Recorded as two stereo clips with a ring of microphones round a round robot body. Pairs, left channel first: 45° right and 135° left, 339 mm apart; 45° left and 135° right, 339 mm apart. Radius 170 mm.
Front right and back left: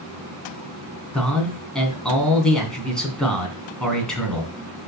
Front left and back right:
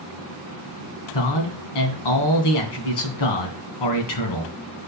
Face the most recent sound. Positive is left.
turn(degrees=45)